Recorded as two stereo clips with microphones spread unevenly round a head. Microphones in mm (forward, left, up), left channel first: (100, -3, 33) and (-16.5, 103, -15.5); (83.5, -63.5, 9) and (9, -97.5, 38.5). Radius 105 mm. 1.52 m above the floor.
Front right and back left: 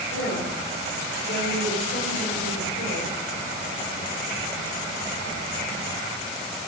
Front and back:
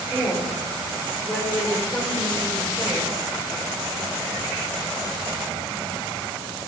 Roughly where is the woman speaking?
Right.